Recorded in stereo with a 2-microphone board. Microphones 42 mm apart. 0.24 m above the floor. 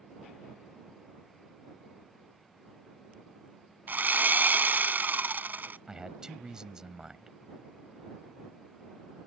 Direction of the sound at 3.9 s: 50° right (ahead or behind).